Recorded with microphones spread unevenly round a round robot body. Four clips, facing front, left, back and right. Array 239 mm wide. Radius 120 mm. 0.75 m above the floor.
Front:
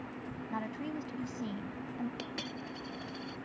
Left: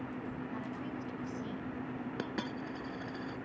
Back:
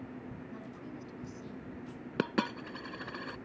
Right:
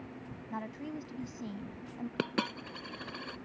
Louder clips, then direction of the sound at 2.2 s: Right 7 dB, back 8 dB; 150° right.